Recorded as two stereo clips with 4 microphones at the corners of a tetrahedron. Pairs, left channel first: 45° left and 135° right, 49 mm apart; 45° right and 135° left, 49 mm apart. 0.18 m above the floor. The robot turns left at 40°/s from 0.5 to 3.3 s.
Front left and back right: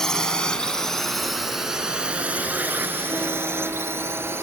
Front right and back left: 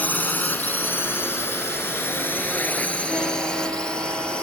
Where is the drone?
25° right; by 4.4 s 115° right.